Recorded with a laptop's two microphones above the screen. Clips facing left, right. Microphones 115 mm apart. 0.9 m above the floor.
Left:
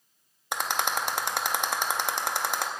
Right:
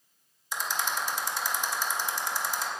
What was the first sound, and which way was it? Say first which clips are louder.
A rattle: left 3 dB; 65° left (ahead or behind).